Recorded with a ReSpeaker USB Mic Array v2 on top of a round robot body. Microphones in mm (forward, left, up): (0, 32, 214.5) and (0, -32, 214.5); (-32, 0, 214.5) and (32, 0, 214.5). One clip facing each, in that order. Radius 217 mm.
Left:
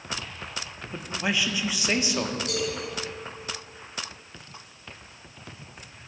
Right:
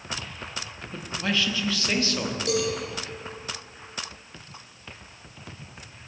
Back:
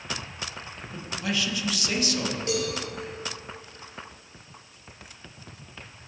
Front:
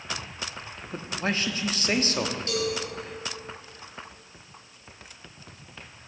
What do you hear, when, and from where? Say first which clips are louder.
0.9 s a man speaking: even, front 1 dB; 25° left, 1.6 m
2.5 s a cowbell: right 4 dB, back 2 dB; 110° right, 4 m